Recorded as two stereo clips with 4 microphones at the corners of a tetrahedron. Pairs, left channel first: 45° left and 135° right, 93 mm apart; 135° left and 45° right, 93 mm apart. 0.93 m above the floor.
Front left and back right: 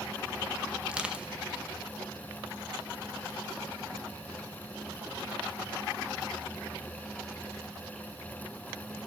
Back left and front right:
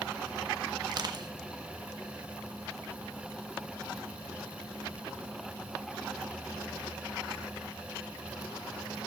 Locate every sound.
0.9 s crushing: 60° right, 1.0 m